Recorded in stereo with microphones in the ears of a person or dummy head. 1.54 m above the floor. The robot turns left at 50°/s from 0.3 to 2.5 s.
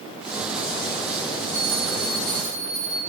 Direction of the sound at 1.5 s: 115° right.